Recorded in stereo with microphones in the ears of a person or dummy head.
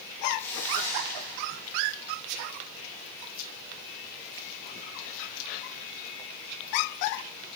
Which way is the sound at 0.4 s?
15° left (ahead or behind).